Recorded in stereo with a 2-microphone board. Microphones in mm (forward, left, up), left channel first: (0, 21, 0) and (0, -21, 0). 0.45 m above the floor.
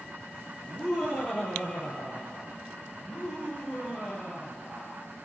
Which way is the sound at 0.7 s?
45° left (ahead or behind).